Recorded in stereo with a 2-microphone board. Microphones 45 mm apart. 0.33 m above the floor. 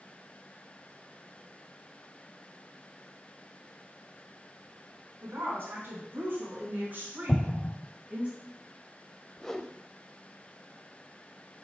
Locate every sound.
5.2 s a woman speaking: 60° right (ahead or behind), 3 m; by 8.3 s 25° right (ahead or behind), 2.5 m
7.3 s an explosion: 35° left (ahead or behind), 0.6 m
9.4 s a whoosh: 10° left (ahead or behind), 0.6 m